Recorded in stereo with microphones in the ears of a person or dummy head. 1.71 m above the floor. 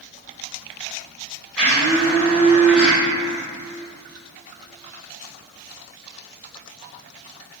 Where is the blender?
Centre (ahead or behind), 0.7 m.